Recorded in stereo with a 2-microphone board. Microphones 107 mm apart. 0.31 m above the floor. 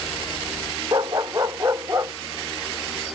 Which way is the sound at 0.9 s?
40° right (ahead or behind).